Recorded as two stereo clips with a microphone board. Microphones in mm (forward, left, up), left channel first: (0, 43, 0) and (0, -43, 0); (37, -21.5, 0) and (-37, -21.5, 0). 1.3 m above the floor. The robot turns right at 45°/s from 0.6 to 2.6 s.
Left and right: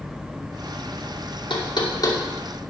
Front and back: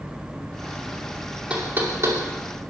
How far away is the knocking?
About 2.5 m.